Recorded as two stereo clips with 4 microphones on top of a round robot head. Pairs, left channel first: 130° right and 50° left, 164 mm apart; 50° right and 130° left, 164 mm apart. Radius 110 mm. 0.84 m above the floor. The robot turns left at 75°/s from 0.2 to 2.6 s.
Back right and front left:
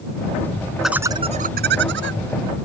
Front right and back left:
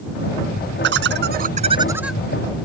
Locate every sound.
0.8 s laughter: 140° left; by 2.2 s 35° left